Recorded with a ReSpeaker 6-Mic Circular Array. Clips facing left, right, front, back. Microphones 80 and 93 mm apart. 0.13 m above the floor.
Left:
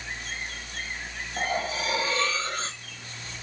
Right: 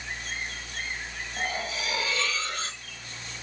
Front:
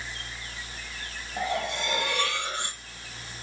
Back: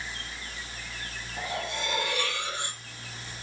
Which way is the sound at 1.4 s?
35° left.